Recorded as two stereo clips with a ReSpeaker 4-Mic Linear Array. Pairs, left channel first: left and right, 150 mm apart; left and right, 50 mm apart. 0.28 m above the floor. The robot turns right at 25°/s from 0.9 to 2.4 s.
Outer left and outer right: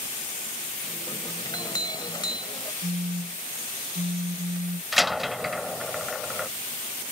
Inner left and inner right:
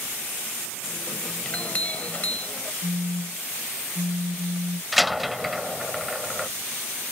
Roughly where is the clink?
Left.